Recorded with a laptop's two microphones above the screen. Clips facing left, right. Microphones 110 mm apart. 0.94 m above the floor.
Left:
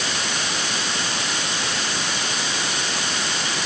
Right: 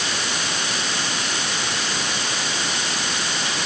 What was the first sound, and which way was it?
Only background noise.